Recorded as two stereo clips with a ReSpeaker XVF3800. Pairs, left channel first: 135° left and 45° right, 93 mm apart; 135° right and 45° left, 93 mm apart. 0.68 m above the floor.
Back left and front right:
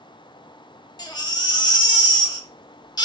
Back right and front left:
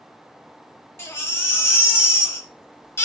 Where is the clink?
I don't hear a clink.